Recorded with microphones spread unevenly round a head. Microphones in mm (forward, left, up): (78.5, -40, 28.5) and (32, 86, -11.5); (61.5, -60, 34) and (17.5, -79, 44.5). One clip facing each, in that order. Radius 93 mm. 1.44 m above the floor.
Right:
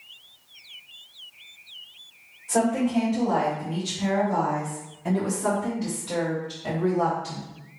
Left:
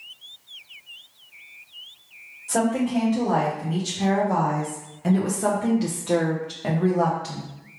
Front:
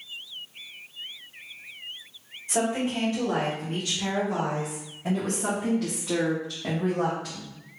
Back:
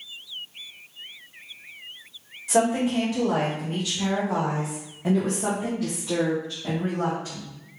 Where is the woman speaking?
175° right, 1.8 m; by 7.5 s 75° left, 1.3 m.